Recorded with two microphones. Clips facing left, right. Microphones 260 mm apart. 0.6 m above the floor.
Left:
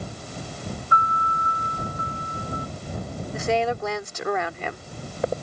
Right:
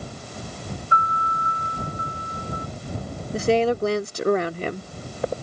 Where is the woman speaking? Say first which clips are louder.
Right 5 dB; 35° right (ahead or behind).